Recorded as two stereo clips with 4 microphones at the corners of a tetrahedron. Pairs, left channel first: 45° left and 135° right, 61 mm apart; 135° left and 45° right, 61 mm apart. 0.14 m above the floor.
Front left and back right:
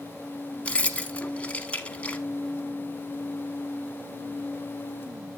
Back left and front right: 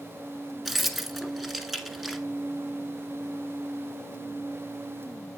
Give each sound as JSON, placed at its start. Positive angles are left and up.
{"t": 0.7, "sound": "keys jangling", "azimuth_deg": 35, "distance_m": 0.7}